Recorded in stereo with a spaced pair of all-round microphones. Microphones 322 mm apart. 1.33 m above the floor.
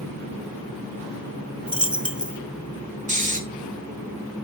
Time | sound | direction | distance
1.7 | a dropped coin | 5° right (ahead or behind) | 1.1 m
3.1 | snoring | 20° right (ahead or behind) | 3 m